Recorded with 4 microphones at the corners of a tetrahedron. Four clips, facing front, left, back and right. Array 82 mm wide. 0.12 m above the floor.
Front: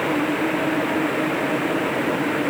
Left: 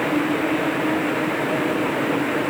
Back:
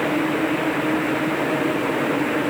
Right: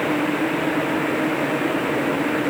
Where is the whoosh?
I don't hear a whoosh.